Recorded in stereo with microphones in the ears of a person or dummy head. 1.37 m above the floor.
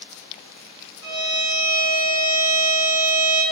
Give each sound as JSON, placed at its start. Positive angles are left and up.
{"t": 1.0, "sound": "a violin", "side_deg": -15, "distance_m": 1.6}